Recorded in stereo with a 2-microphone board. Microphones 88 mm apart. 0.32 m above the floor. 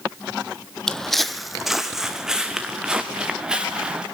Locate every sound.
0.9 s footsteps: 5° left (ahead or behind), 0.6 m; by 4.0 s 10° right (ahead or behind), 2.5 m